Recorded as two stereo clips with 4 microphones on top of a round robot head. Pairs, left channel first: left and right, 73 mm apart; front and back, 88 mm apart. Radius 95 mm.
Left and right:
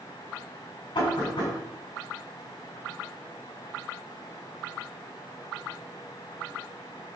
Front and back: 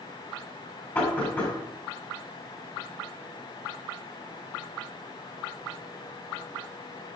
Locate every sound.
0.9 s knocking: 65° left, 7 m